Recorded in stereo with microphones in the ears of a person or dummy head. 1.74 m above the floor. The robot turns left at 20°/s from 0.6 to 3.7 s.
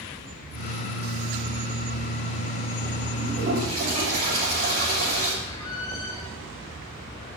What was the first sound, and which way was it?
A toilet flushing, 50° right (ahead or behind).